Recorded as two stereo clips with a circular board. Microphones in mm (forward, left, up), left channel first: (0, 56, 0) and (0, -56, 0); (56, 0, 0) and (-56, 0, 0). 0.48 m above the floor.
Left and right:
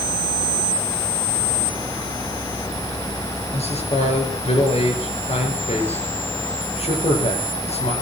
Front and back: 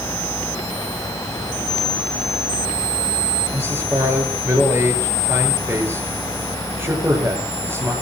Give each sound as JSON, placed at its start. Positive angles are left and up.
{"t": 3.5, "sound": "a man speaking", "azimuth_deg": 110, "distance_m": 7.5}